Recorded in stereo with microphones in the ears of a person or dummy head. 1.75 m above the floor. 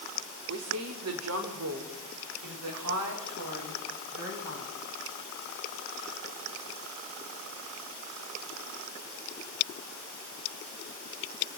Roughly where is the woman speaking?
Right.